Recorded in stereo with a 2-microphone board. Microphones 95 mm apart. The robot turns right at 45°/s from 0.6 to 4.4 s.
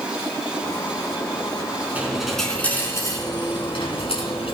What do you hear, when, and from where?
1.9 s a dropped coin: 15° right, 4 m; by 4.5 s 95° left, 4 m